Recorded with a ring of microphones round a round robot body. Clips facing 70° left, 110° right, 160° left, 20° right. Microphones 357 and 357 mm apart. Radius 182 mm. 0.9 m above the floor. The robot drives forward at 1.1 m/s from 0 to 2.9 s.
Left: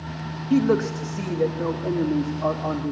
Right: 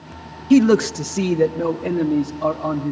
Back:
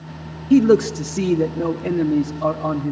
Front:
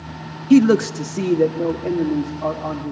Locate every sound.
0.5 s a man speaking: 80° right, 1.0 m; by 2.9 s 160° right, 2.5 m